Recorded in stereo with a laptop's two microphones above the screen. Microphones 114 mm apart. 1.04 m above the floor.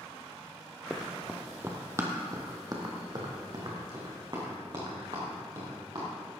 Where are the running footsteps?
Centre (ahead or behind), 1.0 m; by 6.1 s 40° right (ahead or behind), 4.5 m.